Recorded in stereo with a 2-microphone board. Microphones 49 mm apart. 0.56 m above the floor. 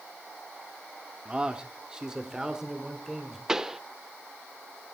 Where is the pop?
10° right (ahead or behind), 0.7 m.